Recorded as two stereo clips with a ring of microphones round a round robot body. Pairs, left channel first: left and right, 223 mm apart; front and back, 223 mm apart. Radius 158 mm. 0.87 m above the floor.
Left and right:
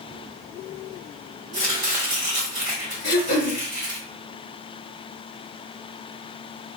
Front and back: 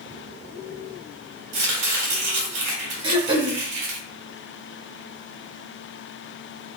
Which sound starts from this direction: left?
Throat clearing, at 3.0 s.